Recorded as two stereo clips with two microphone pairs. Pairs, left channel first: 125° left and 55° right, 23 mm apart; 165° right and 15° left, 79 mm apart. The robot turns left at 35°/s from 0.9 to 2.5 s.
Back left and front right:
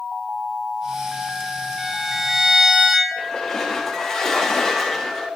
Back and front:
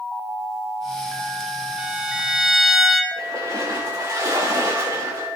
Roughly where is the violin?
Ahead right.